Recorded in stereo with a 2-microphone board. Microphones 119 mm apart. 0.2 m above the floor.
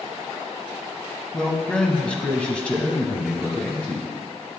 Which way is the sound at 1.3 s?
5° left (ahead or behind).